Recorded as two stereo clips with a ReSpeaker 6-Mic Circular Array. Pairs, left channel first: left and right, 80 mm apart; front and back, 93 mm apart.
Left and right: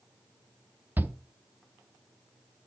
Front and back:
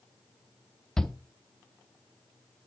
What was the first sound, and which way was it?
A shout, 75° right.